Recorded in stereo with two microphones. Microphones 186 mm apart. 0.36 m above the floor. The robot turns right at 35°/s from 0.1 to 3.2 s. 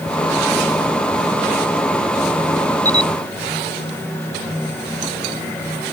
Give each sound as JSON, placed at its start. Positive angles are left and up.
{"t": 2.9, "sound": "a camera shutter", "side_deg": -20}